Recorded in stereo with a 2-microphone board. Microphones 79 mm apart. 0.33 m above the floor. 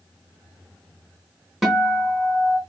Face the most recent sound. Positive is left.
turn(degrees=0)  # may be behind; listen again after turning